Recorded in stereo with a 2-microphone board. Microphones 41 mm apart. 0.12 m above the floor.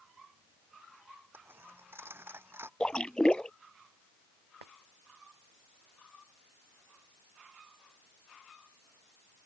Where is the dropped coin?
65° right (ahead or behind).